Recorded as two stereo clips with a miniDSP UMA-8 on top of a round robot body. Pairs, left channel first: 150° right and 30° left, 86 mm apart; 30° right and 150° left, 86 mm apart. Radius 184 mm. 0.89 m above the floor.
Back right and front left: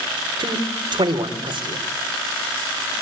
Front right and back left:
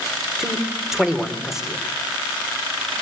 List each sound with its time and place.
0.4 s a man speaking: 65° left, 3.5 m